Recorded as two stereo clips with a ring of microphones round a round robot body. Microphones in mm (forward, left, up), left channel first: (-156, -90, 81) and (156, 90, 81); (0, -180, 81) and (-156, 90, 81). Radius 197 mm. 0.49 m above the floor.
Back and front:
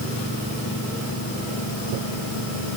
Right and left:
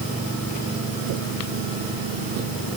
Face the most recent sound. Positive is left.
No sound to turn to.